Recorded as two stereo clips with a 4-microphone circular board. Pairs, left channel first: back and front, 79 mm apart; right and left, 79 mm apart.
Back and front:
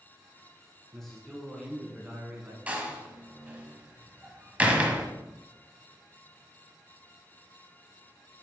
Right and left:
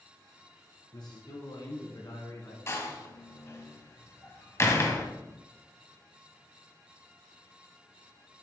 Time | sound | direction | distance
0.9 | a man speaking | 95° right | 3 m
2.7 | a door slam | 65° right | 1.2 m